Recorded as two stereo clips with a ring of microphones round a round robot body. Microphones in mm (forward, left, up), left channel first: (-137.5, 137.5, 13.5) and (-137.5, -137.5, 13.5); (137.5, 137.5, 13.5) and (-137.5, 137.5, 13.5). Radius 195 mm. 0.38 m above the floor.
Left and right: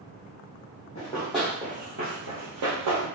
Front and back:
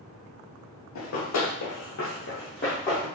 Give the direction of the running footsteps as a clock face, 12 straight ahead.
11 o'clock.